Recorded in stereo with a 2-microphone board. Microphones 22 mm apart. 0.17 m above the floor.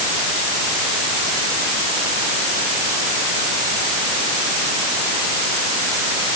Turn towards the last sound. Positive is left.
No sound to turn to.